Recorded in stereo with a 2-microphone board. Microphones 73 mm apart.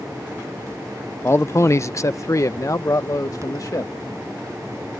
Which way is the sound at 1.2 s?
35° left (ahead or behind).